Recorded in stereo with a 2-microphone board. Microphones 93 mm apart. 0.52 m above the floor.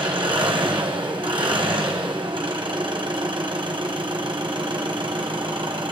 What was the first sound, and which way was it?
An engine running, 65° right (ahead or behind).